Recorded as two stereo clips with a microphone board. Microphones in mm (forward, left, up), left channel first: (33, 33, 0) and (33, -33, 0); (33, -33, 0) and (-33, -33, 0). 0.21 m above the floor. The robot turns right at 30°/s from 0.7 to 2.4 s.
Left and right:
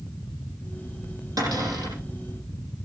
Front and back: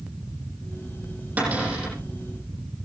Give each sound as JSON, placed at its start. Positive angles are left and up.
{"t": 1.4, "sound": "a cupboard door", "azimuth_deg": -115, "distance_m": 9.5}